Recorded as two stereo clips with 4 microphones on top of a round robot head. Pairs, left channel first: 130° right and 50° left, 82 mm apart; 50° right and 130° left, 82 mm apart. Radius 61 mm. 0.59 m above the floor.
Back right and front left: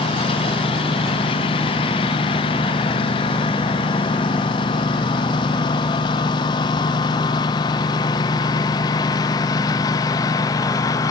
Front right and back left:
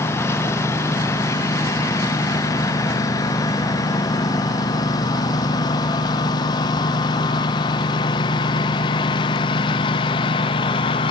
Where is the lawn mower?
115° right; by 11.1 s 80° right.